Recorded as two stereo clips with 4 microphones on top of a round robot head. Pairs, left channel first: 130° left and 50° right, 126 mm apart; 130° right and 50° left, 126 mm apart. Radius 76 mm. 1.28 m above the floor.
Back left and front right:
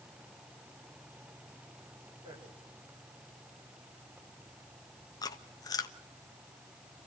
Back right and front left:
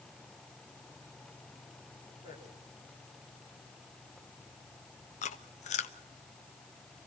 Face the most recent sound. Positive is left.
turn(degrees=-165)